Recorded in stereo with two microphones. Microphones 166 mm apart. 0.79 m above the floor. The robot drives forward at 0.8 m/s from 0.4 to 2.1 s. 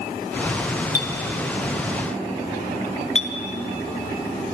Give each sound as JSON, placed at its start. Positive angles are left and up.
{"t": 0.9, "sound": "a clink", "side_deg": 65, "distance_m": 1.6}